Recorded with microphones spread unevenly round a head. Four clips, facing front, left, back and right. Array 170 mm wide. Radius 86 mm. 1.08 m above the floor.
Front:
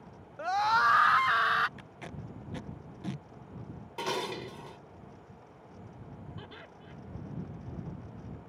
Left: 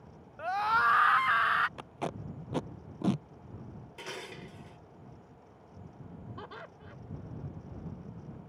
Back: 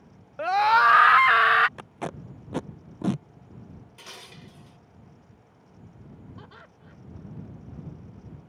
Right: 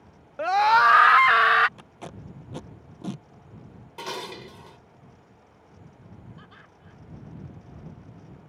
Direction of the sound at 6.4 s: 85° left.